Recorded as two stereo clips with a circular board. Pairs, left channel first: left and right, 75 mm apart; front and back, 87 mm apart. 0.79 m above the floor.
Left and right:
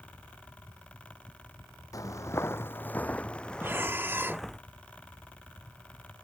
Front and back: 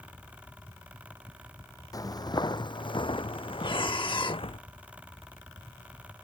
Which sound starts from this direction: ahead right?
Breathing, at 3.6 s.